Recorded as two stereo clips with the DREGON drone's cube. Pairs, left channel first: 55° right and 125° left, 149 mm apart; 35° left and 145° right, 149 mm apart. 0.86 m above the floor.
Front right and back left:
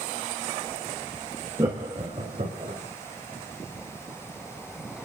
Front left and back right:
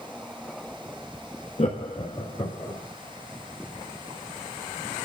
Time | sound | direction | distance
1.6 | laughter | 65° left | 1.1 m